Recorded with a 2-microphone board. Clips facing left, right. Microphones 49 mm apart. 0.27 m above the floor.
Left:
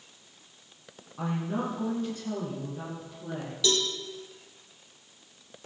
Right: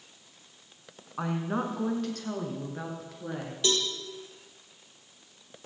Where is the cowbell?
35° right (ahead or behind), 2.5 m.